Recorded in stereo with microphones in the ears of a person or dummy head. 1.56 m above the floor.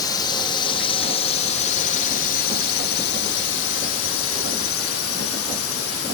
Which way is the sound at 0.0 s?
20° left (ahead or behind).